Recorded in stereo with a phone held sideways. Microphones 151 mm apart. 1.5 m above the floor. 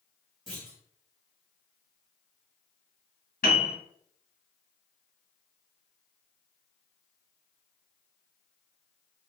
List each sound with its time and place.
0.5 s a clunk: centre (ahead or behind), 1.7 m
3.4 s a piano: 65° left (ahead or behind), 0.9 m